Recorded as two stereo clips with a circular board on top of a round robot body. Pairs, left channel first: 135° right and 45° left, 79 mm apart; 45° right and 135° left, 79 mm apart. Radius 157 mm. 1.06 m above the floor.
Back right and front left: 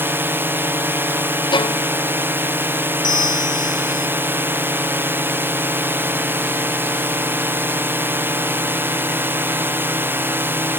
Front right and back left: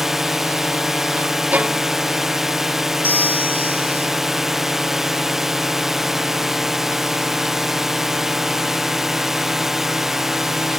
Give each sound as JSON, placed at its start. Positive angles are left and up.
{"t": 0.0, "sound": "a drone", "azimuth_deg": 55}
{"t": 1.5, "sound": "a violin", "azimuth_deg": -155}
{"t": 3.0, "sound": "a bell", "azimuth_deg": -110}